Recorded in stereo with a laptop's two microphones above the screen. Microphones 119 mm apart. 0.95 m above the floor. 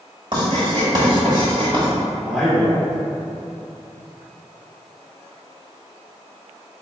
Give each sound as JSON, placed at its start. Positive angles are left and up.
{"t": 0.3, "sound": "writing", "side_deg": -45, "distance_m": 1.8}
{"t": 2.2, "sound": "a man speaking", "side_deg": -5, "distance_m": 1.9}